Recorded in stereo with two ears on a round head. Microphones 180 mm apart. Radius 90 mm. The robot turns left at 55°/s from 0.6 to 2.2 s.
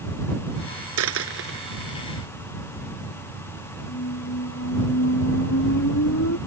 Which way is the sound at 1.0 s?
85° right.